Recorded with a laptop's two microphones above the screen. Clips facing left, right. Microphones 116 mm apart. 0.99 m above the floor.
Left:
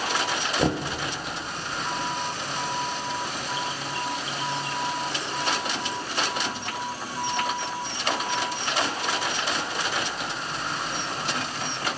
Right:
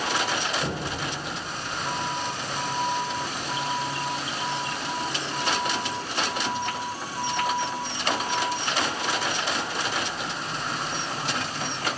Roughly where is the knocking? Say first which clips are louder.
Left 5 dB; left.